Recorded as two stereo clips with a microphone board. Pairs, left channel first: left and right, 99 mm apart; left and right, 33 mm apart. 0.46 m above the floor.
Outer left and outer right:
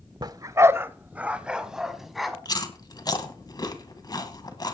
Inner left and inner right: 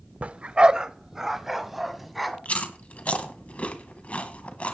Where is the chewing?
45° left (ahead or behind), 1.8 m.